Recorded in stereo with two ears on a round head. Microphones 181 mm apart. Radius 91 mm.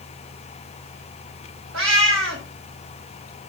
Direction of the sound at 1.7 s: 75° right (ahead or behind).